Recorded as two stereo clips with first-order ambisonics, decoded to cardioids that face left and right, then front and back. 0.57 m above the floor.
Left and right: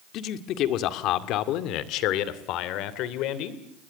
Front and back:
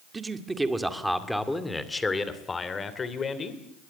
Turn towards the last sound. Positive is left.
turn(degrees=65)